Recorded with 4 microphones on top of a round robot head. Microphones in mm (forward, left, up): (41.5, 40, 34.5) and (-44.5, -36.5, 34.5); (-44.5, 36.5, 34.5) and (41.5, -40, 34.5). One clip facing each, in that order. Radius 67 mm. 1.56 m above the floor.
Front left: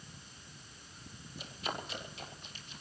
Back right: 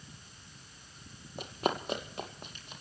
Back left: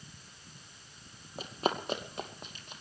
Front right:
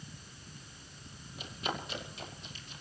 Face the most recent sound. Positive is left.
turn(degrees=180)